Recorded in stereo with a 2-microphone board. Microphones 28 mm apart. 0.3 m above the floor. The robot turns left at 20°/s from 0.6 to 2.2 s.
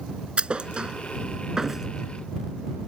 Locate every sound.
0.4 s a thud: 35° right (ahead or behind); by 1.9 s 10° right (ahead or behind)